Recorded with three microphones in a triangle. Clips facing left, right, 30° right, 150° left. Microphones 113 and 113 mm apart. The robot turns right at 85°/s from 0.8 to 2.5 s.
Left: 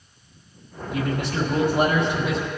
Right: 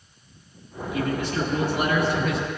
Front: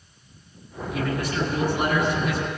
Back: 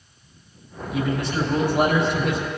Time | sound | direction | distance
0.9 | a man speaking | 60° left | 5.5 m